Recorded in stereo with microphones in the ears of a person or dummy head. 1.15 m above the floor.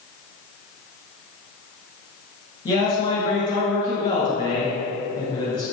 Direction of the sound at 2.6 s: 35° left (ahead or behind).